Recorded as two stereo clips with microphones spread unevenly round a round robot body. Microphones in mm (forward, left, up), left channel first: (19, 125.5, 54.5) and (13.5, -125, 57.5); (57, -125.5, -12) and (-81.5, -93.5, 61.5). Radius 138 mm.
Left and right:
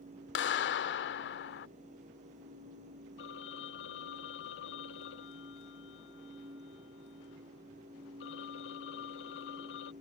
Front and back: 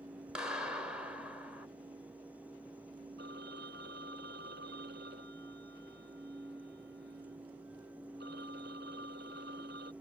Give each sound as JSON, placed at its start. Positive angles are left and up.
{"t": 0.3, "sound": "a clap", "azimuth_deg": 60}
{"t": 3.2, "sound": "a phone ringing", "azimuth_deg": 135}